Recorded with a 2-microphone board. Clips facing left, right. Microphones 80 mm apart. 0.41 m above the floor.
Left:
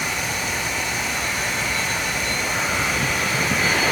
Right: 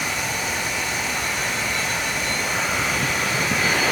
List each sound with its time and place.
Only background noise.